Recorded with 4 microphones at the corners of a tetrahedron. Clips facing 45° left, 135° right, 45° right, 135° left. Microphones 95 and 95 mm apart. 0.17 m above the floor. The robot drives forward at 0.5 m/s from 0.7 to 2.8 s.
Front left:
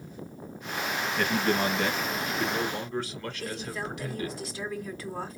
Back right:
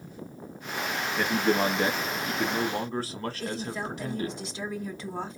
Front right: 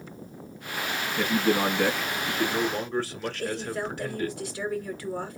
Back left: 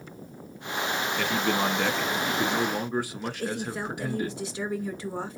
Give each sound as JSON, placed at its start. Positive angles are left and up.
{"t": 1.2, "sound": "a man speaking", "azimuth_deg": -75, "distance_m": 1.0}
{"t": 3.4, "sound": "a woman speaking", "azimuth_deg": -175, "distance_m": 1.7}